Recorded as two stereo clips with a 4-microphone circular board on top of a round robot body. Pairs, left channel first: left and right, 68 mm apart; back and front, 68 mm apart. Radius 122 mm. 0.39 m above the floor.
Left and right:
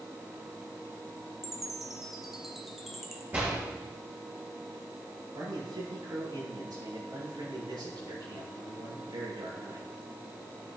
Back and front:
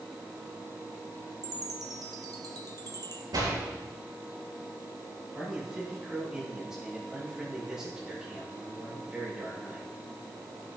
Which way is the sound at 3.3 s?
20° right.